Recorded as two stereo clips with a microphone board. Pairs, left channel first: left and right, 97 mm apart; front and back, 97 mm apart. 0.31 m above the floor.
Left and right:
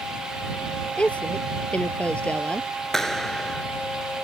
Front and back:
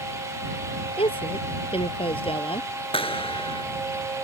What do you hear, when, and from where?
1.0 s a woman speaking: 10° left
2.9 s a clap: 5° left